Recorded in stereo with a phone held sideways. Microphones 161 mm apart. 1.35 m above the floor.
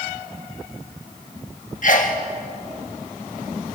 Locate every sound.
1.8 s a sneeze: 60° left (ahead or behind), 1.6 m